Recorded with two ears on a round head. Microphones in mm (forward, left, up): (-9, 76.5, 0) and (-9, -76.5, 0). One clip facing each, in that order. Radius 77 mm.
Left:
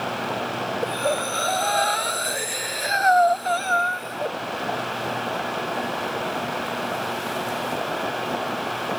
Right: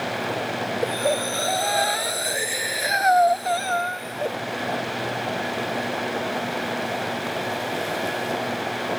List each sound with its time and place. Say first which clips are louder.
0.8 s breathing: right 2 dB; 15° right (ahead or behind)